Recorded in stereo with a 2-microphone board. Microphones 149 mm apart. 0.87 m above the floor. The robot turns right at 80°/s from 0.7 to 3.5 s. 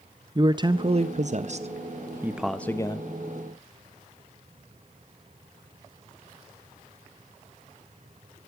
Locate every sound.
0.3 s a man speaking: 140° right, 0.6 m; by 3.1 s 50° left, 0.6 m